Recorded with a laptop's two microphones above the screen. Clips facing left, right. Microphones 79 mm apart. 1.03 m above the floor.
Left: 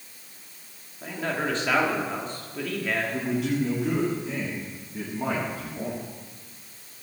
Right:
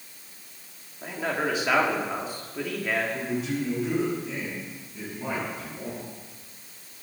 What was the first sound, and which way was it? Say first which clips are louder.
A man speaking: right 1 dB; 10° right (ahead or behind).